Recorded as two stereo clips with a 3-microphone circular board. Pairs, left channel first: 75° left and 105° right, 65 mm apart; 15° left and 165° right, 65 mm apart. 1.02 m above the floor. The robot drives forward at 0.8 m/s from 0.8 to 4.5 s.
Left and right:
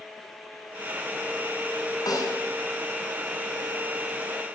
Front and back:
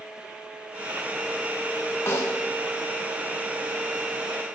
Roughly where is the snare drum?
Ahead left.